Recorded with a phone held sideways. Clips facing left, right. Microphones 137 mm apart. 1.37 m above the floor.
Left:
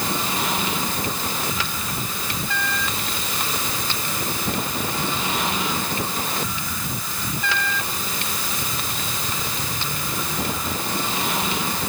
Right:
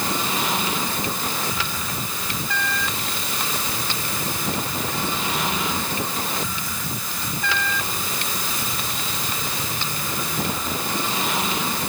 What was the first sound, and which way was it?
Only background noise.